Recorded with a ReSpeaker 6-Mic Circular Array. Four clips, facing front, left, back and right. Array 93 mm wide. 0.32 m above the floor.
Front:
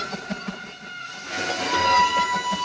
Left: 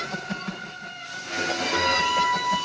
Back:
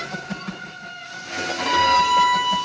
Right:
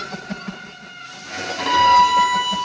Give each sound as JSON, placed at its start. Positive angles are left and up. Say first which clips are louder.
{"t": 1.6, "sound": "a violin", "louder": "right 13 dB, back 2 dB", "azimuth_deg": -120, "distance_m": 2.0}